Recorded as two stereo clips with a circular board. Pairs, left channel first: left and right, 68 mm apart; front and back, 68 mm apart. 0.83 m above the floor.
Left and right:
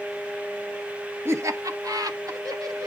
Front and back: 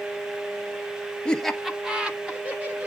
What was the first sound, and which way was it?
Laughter, 70° right.